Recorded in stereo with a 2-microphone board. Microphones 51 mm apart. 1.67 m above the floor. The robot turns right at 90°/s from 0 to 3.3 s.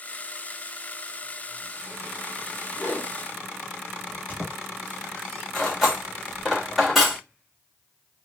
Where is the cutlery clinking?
Centre (ahead or behind), 1.5 m.